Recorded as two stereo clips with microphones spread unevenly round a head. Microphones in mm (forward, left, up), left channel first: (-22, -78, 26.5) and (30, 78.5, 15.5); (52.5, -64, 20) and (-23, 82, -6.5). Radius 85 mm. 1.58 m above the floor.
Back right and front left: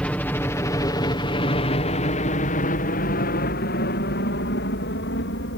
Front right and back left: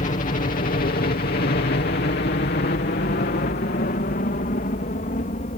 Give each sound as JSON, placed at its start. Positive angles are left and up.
{"t": 0.0, "sound": "a helicopter", "azimuth_deg": -25}